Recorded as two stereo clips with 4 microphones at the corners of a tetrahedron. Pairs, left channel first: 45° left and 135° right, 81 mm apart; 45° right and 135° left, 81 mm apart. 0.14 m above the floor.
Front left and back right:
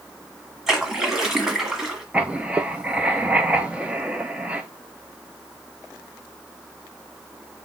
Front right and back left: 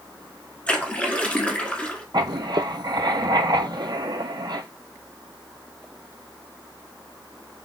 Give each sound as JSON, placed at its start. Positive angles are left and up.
{"t": 0.7, "sound": "a splash", "azimuth_deg": -65, "distance_m": 1.2}
{"t": 2.1, "sound": "writing", "azimuth_deg": 150, "distance_m": 0.6}